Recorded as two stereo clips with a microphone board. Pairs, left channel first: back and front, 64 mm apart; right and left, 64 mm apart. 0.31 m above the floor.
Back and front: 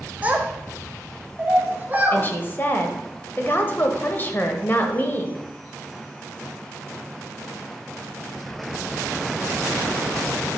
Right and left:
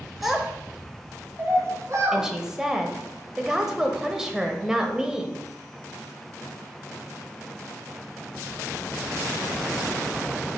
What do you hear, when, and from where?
0.2 s a child speaking: straight ahead, 0.9 m; by 2.2 s 60° left, 2.5 m
2.1 s a woman speaking: 165° left, 0.9 m